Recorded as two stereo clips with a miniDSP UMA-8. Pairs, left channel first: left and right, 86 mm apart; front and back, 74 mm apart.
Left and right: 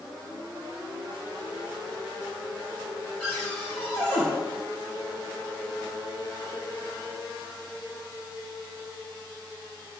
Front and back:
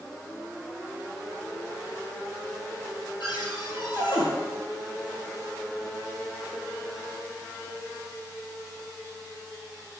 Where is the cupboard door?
Straight ahead, 4 m.